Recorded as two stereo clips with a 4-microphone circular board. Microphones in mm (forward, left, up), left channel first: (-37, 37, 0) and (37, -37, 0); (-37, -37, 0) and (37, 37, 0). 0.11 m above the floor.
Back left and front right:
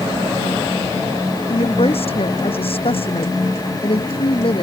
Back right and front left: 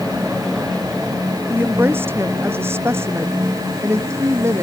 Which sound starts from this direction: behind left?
A woman speaking, at 1.5 s.